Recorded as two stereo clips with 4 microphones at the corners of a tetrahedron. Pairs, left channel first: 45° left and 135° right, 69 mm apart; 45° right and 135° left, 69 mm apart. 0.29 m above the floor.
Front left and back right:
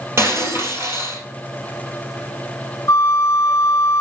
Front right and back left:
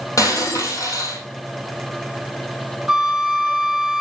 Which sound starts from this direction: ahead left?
A flute, at 2.9 s.